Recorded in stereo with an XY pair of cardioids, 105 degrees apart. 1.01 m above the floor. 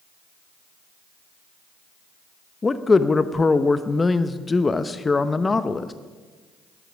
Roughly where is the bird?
No bird in this recording.